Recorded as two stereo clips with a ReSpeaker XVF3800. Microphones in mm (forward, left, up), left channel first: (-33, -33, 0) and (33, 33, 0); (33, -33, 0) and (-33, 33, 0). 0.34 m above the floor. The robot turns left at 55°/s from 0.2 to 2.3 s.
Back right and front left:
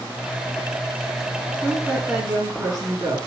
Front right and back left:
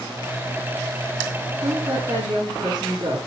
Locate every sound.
1.6 s a woman speaking: 135° left, 5 m; by 3.2 s 100° left, 5 m